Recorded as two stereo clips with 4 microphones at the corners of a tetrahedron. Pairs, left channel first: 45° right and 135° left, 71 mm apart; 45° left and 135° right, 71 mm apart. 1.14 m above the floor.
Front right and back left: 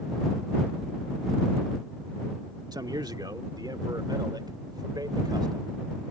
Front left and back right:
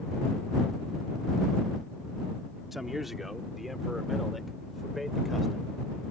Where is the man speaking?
140° left; by 5.7 s 135° left.